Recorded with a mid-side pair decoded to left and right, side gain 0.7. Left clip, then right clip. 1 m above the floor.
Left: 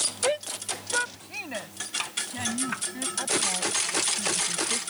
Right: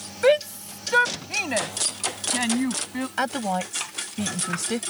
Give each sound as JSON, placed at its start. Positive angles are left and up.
{"t": 0.2, "sound": "a shout", "azimuth_deg": -35}
{"t": 3.2, "sound": "a woman speaking", "azimuth_deg": -50}